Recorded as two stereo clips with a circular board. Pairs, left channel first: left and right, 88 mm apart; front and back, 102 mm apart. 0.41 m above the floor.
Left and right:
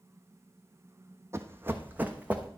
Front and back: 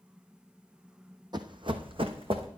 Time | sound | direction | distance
1.3 | running footsteps | 140° right | 0.9 m